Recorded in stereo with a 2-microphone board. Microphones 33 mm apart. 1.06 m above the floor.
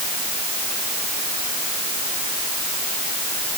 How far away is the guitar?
I don't hear a guitar.